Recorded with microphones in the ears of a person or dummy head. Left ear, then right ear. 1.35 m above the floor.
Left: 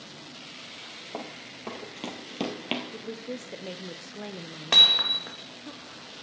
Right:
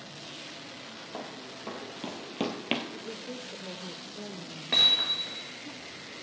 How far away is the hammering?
About 1.4 m.